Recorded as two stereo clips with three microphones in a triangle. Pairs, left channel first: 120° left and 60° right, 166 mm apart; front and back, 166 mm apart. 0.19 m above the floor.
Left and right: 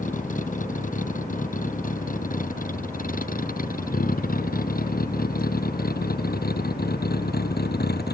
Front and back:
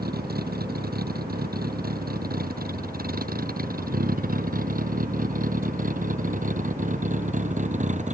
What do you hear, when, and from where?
0.0 s a vehicle: 160° left; by 8.1 s 135° left